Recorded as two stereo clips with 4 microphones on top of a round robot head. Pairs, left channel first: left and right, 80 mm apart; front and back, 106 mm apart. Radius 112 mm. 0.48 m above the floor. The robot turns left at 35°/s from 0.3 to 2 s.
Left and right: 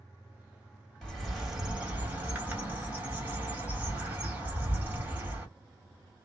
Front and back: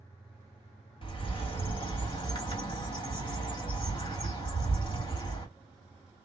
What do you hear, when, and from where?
1.0 s a bird: 10° left, 1.7 m; by 5.5 s 25° right, 1.7 m